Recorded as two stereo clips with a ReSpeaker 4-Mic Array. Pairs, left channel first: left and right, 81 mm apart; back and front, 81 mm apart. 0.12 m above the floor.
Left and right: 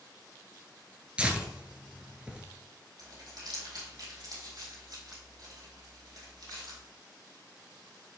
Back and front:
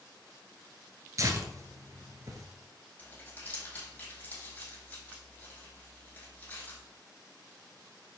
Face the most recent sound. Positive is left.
turn(degrees=-115)